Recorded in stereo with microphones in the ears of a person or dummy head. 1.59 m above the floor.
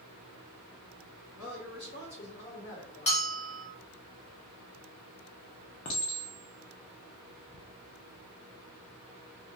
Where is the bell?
30° left (ahead or behind), 0.7 m.